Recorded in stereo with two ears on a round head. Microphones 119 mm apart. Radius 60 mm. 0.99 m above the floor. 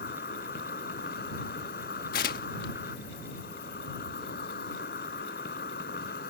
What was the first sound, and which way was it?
An insect, 85° left.